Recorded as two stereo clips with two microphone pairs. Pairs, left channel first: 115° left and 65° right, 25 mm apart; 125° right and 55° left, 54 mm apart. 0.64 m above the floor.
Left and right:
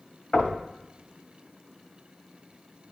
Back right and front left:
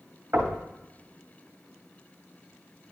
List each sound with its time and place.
0.3 s knocking: 80° left, 2 m